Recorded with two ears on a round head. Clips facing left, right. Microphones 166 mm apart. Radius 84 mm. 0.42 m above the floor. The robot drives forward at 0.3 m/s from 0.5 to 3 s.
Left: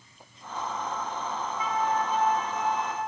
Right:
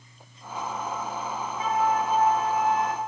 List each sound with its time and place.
1.6 s a flute: 35° right (ahead or behind), 1.3 m; by 3.0 s 45° right (ahead or behind), 1.0 m